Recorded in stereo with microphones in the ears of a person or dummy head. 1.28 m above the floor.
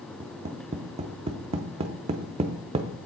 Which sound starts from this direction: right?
Tapping, at 0.2 s.